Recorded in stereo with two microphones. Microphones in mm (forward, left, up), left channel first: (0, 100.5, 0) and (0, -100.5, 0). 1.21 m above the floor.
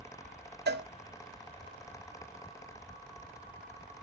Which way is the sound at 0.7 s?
55° right (ahead or behind).